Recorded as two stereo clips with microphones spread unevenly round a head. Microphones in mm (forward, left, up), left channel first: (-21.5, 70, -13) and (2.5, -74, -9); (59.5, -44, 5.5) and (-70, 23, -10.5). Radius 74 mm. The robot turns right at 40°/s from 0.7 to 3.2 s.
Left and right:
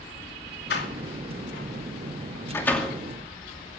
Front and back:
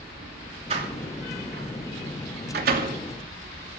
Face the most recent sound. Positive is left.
turn(degrees=-160)